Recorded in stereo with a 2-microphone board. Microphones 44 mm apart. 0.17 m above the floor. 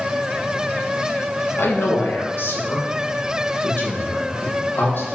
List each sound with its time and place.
1.6 s a man speaking: 60° left (ahead or behind), 3 m; by 5.2 s 50° left (ahead or behind), 6 m